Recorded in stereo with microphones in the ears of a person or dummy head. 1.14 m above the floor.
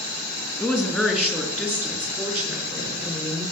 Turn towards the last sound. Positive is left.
turn(degrees=-20)  # may be behind; listen again after turning